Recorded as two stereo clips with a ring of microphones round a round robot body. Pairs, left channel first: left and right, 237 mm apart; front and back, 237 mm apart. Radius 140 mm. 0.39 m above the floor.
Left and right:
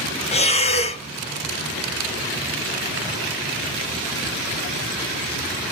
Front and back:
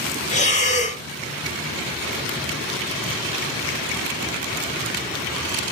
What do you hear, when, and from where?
0.3 s breathing: 40° left, 0.6 m